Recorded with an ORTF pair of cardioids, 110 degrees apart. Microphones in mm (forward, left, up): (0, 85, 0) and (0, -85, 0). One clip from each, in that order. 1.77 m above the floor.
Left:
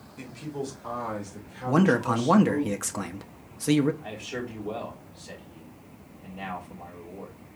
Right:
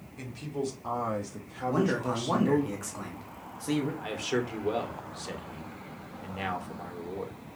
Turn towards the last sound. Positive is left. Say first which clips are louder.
# right 4 dB
turn(degrees=-60)